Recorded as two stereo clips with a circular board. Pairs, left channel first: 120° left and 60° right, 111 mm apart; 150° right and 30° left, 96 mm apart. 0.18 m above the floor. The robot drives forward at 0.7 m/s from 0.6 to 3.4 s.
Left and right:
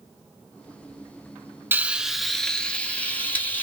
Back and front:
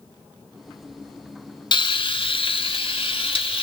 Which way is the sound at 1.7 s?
130° right.